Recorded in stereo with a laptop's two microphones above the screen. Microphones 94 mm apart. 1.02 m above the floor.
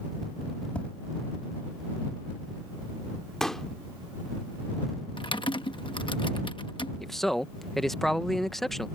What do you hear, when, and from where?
0.8 s tapping: 10° left (ahead or behind)
3.4 s a pop: 5° left (ahead or behind)
5.2 s typing on a keyboard: 60° left (ahead or behind)
7.0 s a man speaking: 5° left (ahead or behind)